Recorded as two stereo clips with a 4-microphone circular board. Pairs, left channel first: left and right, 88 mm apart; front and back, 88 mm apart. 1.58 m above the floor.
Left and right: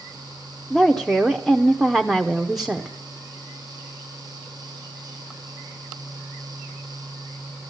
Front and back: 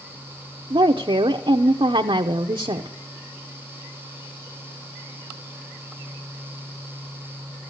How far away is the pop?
I don't hear a pop.